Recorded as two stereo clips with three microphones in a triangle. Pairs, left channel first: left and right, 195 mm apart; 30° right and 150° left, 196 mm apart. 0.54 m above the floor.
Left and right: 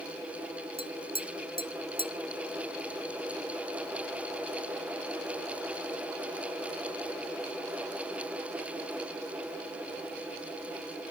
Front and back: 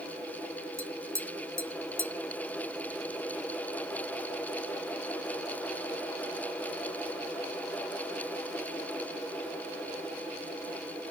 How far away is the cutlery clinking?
I don't hear cutlery clinking.